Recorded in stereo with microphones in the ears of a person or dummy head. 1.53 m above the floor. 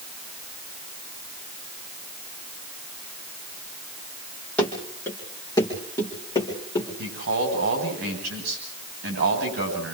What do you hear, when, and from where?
4.6 s running footsteps: 10° left (ahead or behind), 3 m; by 6.9 s 30° left (ahead or behind), 6 m
7.0 s a man speaking: 55° right (ahead or behind), 9.5 m